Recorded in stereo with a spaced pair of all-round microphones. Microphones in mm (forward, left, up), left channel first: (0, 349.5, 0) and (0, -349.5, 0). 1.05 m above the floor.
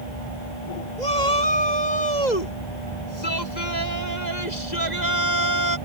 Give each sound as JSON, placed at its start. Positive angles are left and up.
{"t": 1.0, "sound": "a shout", "side_deg": 85}